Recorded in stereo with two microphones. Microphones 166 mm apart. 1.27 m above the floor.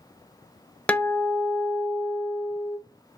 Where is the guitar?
10° left (ahead or behind), 0.8 m.